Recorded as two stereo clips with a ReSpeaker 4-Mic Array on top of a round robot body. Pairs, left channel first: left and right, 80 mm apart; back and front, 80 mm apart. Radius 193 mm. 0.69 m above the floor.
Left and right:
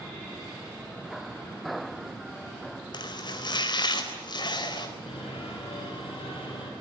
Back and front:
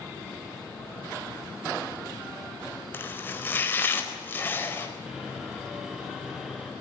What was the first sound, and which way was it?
Chopping, 115° left.